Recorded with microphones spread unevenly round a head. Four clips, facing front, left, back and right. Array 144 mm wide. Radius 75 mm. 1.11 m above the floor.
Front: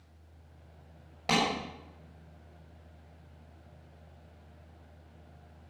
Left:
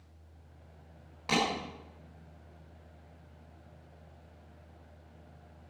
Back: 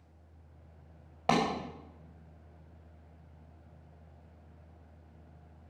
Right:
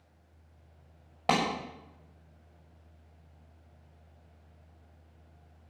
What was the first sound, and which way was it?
A clap, 110° right.